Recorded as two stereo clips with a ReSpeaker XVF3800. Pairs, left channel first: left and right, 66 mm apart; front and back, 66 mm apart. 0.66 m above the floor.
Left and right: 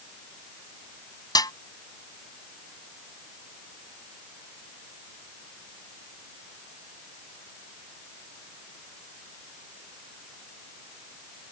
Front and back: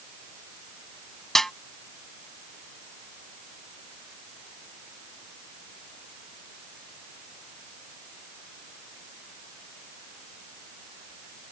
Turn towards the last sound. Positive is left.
turn(degrees=85)